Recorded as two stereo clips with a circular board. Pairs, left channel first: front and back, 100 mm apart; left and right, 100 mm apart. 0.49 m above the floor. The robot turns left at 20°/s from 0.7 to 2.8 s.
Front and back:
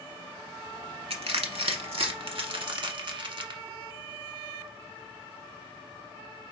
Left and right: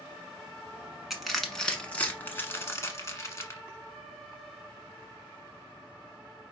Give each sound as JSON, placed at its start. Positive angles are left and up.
{"t": 1.1, "sound": "crushing", "azimuth_deg": -175, "distance_m": 1.1}